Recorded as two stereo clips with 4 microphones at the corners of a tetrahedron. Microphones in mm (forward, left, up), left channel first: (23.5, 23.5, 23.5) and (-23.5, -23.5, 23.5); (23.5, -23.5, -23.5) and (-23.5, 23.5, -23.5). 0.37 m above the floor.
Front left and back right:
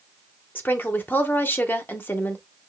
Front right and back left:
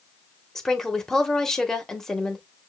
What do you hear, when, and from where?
0.6 s a woman speaking: 35° left, 0.9 m